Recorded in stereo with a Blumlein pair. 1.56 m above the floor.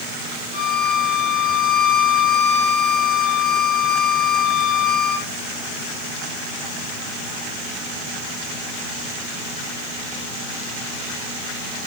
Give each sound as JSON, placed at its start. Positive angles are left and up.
{"t": 0.5, "sound": "a violin", "azimuth_deg": 45, "distance_m": 3.5}